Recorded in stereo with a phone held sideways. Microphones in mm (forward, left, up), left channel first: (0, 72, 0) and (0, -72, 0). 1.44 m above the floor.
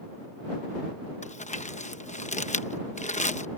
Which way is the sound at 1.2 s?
55° left (ahead or behind).